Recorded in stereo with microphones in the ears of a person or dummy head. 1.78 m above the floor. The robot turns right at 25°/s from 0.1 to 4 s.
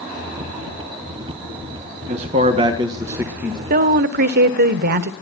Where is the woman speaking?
45° right (ahead or behind), 1.3 m; by 5.1 s 50° right (ahead or behind), 1.3 m.